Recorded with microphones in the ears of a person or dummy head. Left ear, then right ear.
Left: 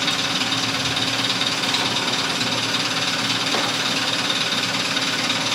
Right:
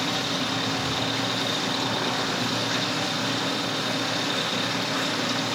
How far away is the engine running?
About 10 m.